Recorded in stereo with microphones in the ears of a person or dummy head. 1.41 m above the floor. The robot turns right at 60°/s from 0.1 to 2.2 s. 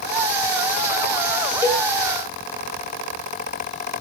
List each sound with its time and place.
1.6 s a cowbell: 10° right (ahead or behind), 1.5 m; by 1.9 s 25° right (ahead or behind), 1.5 m